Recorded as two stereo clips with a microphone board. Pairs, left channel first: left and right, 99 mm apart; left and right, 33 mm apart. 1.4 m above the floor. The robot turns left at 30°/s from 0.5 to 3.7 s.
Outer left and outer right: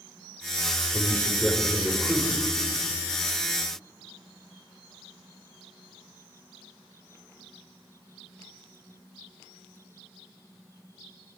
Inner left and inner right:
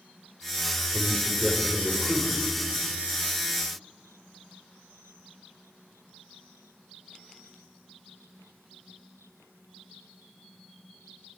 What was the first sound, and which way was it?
A man speaking, 30° left.